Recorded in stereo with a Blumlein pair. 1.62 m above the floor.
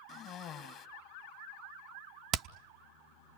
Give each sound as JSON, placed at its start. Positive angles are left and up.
{"t": 0.1, "sound": "a cough", "azimuth_deg": 35, "distance_m": 2.5}
{"t": 2.3, "sound": "hammering", "azimuth_deg": -30, "distance_m": 0.7}